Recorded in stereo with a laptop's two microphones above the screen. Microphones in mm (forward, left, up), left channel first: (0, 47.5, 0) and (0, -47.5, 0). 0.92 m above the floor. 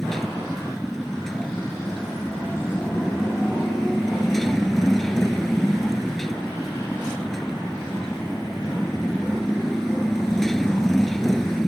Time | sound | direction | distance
0.0 | a motorcycle | centre (ahead or behind) | ?